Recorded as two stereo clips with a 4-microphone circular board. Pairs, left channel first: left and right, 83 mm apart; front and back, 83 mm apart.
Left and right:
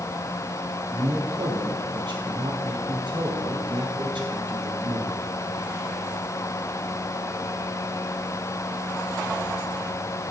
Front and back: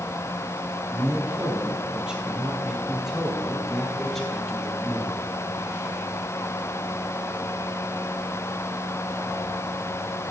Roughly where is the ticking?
I don't hear ticking.